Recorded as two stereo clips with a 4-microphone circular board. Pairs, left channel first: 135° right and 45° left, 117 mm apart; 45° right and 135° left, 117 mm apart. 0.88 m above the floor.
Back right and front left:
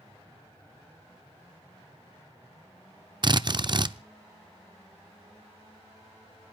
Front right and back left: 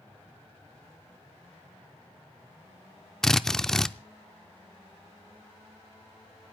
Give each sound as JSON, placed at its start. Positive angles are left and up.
{"t": 3.2, "sound": "a drill", "azimuth_deg": 40, "distance_m": 0.5}